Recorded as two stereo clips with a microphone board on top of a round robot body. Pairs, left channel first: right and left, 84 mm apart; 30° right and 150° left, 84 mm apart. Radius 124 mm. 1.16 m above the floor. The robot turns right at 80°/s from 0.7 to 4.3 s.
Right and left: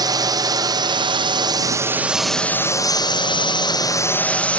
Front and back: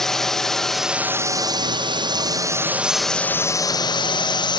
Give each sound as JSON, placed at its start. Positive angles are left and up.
{"t": 0.0, "sound": "a drone", "azimuth_deg": 55}